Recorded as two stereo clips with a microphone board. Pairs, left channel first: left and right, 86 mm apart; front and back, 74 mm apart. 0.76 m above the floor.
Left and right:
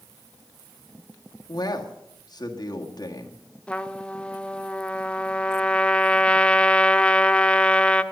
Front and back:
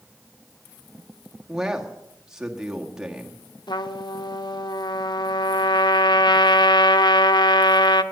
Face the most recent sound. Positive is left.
turn(degrees=15)